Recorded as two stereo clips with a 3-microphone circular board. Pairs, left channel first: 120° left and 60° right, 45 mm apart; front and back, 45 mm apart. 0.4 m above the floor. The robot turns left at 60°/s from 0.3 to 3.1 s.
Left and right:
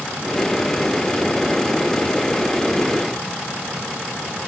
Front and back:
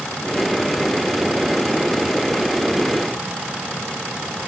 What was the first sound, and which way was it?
Only background noise.